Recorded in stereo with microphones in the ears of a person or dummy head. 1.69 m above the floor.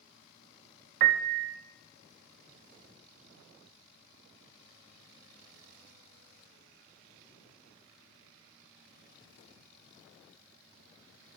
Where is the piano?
50° right (ahead or behind), 0.7 m.